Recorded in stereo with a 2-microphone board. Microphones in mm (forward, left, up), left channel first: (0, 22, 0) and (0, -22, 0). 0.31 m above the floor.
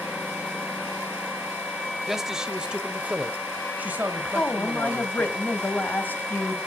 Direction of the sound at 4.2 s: 40° left (ahead or behind).